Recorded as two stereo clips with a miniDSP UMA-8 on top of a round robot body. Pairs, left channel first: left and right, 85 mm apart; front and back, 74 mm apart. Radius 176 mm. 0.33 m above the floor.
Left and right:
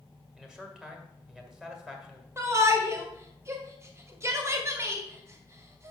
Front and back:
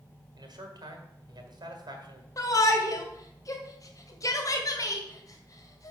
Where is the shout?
35° right, 2 m.